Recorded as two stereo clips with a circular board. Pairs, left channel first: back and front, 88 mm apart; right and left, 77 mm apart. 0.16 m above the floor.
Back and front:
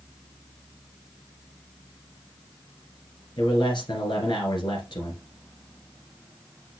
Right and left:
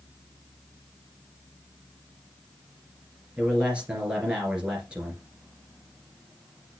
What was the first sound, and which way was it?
A man speaking, 165° left.